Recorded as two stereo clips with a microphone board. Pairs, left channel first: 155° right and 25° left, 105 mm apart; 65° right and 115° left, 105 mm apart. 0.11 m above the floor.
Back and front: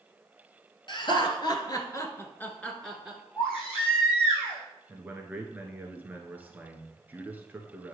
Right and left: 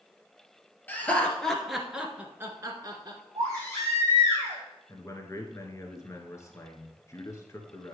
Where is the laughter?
135° right, 1.7 m; by 3.2 s 105° left, 1.4 m.